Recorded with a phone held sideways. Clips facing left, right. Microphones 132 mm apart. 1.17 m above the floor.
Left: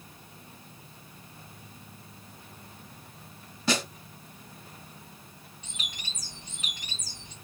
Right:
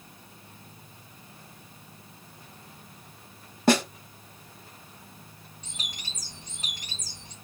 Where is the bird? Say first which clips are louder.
Even; 40° right (ahead or behind), 1.1 m.